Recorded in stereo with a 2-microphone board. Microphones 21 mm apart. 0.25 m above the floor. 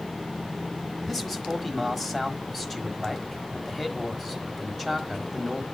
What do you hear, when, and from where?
1.1 s a man speaking: 10° left (ahead or behind), 1.3 m